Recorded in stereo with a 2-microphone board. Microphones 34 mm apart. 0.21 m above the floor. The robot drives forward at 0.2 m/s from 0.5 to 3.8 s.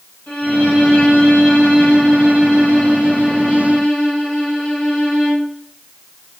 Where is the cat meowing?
No cat meowing in this recording.